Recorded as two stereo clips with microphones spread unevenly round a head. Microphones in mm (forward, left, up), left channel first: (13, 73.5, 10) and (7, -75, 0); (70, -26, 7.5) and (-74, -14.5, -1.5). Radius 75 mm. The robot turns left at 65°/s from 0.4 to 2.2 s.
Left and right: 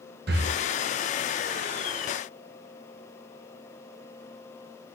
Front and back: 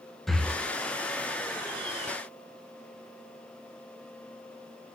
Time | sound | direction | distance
0.3 | breathing | 95° right | 0.6 m